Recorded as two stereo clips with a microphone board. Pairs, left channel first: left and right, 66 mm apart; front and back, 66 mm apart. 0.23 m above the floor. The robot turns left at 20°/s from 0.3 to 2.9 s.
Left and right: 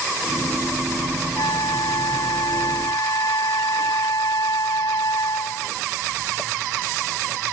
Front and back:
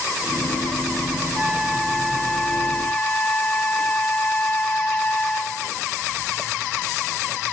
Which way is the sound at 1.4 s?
100° left.